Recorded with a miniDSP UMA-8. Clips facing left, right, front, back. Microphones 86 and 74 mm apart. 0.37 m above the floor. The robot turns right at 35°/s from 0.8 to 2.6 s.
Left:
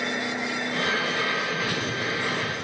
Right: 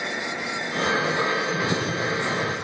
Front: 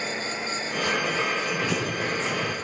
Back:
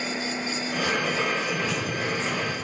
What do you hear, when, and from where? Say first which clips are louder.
1.6 s running footsteps: right 3 dB, front 1 dB; 45° right, 4.5 m; by 2.5 s 15° right, 4.5 m